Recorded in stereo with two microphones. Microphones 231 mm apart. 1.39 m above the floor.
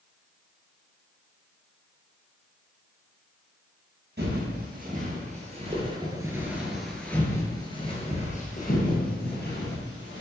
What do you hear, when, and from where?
4.2 s footsteps: 50° right (ahead or behind), 2.0 m; by 10.2 s 55° left (ahead or behind), 2.5 m